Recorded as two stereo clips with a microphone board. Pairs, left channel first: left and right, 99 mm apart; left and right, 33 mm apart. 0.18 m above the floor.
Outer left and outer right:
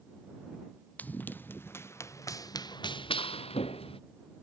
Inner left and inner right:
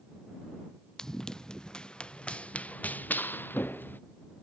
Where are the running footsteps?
15° left (ahead or behind); by 4.0 s 70° left (ahead or behind).